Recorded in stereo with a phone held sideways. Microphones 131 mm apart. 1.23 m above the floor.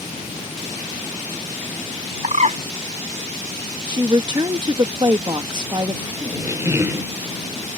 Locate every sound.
2.2 s a bird: 60° right (ahead or behind)
3.9 s a woman speaking: 35° right (ahead or behind)
6.2 s a squeak: 20° right (ahead or behind)